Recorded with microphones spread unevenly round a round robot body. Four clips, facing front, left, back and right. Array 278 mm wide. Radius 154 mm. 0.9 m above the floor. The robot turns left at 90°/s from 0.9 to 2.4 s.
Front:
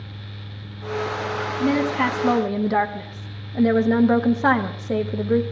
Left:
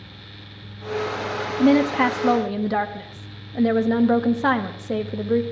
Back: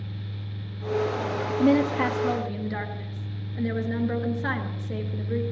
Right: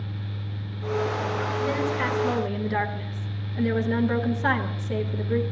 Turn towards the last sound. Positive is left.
turn(degrees=30)